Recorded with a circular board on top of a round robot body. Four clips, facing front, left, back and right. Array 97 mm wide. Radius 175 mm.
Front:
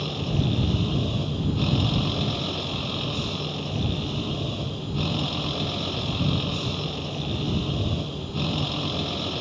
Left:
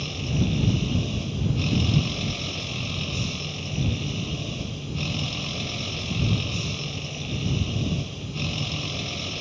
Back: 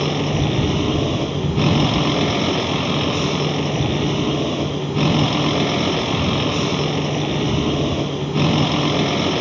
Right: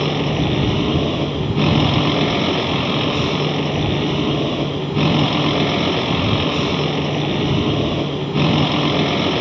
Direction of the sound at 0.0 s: 125° right.